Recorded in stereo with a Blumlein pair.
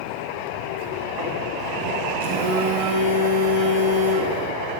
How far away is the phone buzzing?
About 2.5 m.